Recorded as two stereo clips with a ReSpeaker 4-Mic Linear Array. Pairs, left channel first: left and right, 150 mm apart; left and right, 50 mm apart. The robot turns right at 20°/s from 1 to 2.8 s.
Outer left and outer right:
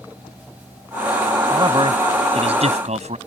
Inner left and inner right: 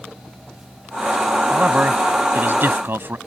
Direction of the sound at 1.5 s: 30° right (ahead or behind).